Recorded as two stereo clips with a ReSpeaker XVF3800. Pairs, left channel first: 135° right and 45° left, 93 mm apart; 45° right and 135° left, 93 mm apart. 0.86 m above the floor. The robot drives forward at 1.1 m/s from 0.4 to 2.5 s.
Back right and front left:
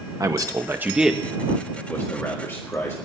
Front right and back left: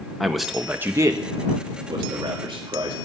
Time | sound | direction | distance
0.2 | a man speaking | 50° left | 1.1 m